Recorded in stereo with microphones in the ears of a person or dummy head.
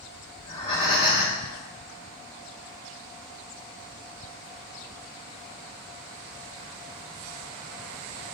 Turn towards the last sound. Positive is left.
turn(degrees=30)  # may be behind; listen again after turning